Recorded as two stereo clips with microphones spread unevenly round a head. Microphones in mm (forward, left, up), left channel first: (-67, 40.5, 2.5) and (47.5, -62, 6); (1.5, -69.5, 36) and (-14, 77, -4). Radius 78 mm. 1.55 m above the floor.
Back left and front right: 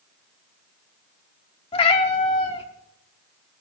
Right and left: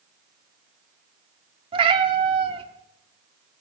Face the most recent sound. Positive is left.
turn(degrees=150)